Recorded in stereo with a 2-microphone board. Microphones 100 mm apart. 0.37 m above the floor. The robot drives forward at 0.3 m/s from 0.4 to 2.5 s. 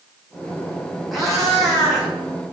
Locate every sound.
1.1 s a cat meowing: centre (ahead or behind), 1.5 m